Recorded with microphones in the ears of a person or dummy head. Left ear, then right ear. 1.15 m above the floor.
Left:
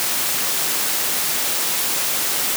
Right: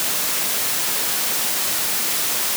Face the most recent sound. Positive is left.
No sound to turn to.